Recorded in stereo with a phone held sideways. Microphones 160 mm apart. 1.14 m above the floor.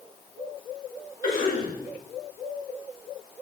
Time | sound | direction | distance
1.2 | a cough | 70° left (ahead or behind) | 6 m